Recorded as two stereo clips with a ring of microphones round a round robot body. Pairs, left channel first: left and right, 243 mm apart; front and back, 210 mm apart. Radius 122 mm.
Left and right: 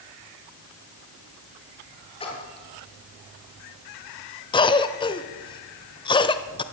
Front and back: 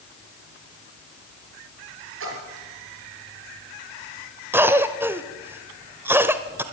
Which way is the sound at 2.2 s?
160° left.